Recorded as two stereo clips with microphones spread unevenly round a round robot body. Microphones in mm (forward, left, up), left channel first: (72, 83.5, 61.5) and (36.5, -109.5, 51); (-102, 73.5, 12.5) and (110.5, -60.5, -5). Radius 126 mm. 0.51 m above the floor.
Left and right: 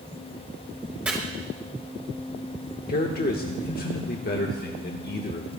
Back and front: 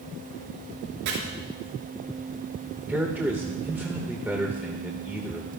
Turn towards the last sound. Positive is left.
turn(degrees=50)